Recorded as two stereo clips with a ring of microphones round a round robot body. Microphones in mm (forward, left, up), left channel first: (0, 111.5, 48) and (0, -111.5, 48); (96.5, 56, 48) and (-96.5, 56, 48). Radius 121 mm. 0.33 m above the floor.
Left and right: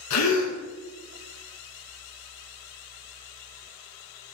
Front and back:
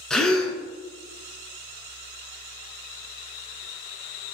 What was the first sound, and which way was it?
A gasp, 85° left.